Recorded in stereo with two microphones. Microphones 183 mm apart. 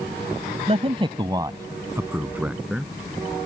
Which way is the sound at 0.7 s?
40° right (ahead or behind).